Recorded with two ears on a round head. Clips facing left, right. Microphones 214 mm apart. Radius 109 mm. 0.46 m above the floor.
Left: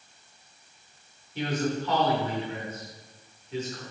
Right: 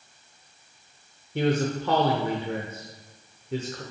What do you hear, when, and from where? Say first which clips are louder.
1.4 s a man speaking: right 4 dB; 45° right (ahead or behind), 1.3 m